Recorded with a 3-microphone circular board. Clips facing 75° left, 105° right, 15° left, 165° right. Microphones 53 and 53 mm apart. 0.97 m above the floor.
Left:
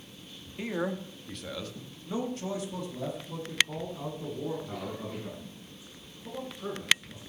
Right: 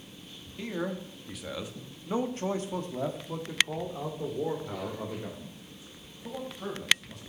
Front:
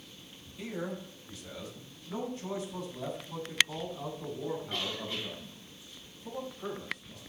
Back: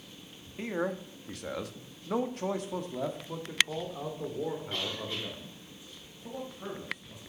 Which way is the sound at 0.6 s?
145° left.